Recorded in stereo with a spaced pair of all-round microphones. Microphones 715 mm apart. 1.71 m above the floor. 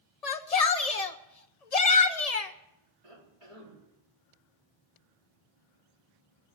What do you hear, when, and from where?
0.2 s a shout: 60° left (ahead or behind), 0.9 m
3.0 s a cough: 45° right (ahead or behind), 4.5 m